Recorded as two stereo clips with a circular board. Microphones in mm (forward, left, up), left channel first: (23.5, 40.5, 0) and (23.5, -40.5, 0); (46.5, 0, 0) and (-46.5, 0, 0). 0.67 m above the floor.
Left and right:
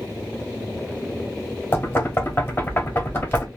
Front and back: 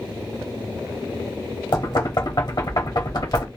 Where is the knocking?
30° left, 0.9 m.